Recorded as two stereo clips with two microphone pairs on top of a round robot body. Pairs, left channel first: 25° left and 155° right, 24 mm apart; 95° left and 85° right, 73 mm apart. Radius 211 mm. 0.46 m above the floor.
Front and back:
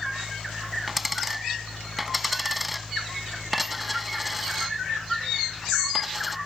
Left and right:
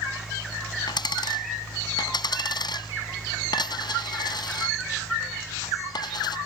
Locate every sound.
0.9 s a dropped coin: 125° left